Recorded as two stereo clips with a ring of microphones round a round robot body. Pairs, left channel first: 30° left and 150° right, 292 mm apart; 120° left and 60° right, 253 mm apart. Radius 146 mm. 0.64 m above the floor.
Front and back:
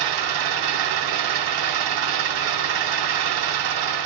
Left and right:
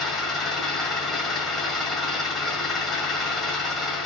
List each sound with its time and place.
0.0 s an engine running: 150° right, 1.8 m